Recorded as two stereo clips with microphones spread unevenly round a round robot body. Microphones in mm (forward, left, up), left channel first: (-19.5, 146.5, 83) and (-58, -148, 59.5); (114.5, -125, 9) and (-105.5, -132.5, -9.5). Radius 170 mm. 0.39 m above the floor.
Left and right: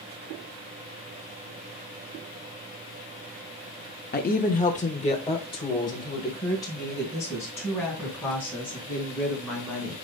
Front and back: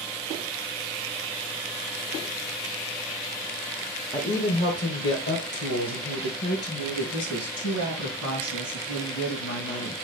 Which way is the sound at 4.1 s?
65° left.